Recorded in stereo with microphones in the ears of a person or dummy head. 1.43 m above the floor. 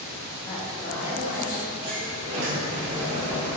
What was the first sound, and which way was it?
A woman speaking, 25° left (ahead or behind).